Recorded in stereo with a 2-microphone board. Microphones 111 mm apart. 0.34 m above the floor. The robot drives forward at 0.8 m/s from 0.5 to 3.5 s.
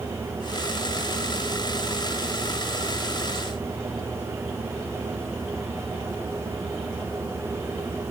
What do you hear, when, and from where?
Only background noise.